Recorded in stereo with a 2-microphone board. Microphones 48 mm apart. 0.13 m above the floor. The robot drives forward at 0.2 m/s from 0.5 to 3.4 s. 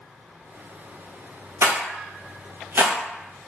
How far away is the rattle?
About 0.6 m.